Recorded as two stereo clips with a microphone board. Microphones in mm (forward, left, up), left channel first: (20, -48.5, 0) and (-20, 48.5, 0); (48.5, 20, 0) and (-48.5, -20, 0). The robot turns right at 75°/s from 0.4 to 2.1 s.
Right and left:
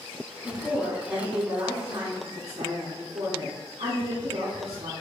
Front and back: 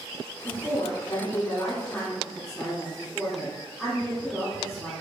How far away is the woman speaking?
About 1.7 m.